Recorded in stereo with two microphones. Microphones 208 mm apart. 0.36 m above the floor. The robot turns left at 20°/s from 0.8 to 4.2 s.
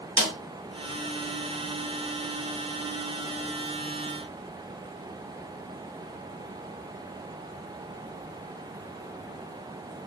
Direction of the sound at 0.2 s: 70° right (ahead or behind).